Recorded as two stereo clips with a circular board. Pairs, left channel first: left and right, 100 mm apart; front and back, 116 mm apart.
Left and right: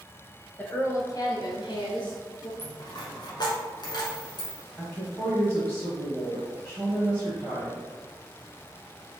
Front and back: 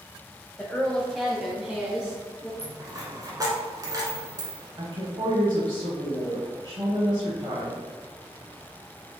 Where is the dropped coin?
125° left, 1.2 m.